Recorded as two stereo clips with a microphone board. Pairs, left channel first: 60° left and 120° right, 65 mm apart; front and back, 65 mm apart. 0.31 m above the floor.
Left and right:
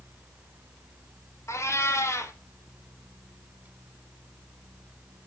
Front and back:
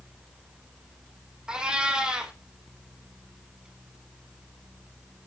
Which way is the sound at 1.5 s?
105° left.